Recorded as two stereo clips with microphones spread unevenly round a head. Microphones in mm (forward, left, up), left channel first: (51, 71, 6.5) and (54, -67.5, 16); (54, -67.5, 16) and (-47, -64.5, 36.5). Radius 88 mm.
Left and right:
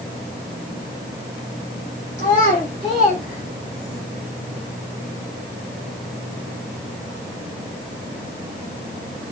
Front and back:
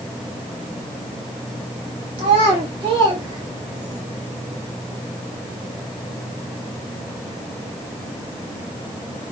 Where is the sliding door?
I don't hear a sliding door.